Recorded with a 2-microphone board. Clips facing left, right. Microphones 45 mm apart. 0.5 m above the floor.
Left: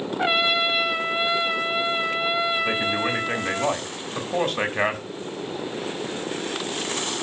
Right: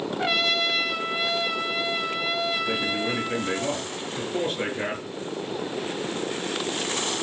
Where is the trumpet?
20° left (ahead or behind), 0.6 m.